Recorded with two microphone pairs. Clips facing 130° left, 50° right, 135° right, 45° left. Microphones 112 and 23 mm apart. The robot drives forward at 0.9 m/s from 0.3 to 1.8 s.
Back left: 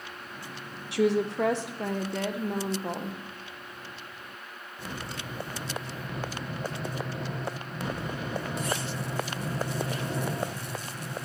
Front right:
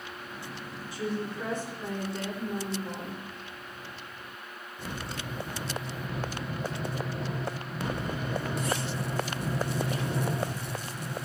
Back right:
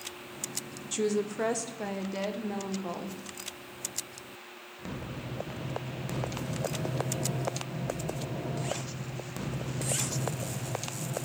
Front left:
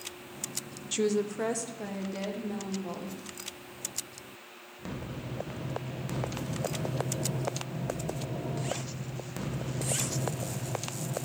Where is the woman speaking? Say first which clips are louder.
Back left 9 dB, front left 1 dB; 110° left, 0.7 m; by 3.2 s 150° left, 1.2 m.